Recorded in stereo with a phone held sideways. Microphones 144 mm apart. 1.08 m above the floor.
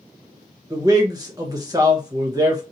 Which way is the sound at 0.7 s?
25° right (ahead or behind).